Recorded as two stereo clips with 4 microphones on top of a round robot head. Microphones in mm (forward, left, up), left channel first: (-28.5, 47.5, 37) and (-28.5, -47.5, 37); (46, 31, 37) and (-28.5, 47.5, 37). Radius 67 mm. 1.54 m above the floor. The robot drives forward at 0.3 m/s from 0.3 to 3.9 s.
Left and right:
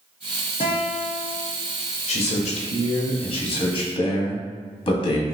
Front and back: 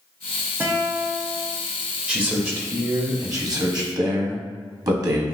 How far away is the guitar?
About 0.7 m.